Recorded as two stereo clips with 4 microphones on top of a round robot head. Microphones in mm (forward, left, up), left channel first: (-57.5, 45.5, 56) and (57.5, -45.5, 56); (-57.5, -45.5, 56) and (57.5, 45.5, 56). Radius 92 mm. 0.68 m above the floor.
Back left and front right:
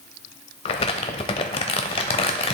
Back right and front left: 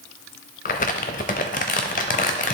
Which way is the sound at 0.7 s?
170° right.